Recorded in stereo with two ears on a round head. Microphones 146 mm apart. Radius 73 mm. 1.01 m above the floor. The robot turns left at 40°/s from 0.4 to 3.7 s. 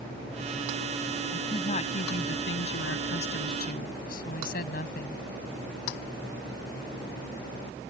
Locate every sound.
1.3 s a woman speaking: 150° left; by 5.2 s 55° left